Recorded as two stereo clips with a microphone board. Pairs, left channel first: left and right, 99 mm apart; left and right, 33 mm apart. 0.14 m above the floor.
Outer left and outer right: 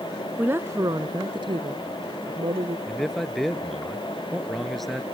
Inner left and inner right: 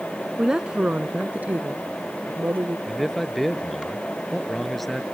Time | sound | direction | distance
0.4 | a woman speaking | 15° right (ahead or behind) | ?
2.9 | a man speaking | centre (ahead or behind) | ?